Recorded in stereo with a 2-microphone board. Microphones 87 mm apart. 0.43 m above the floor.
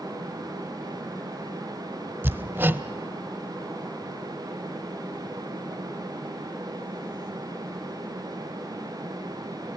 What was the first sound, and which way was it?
Hammering, 25° right (ahead or behind).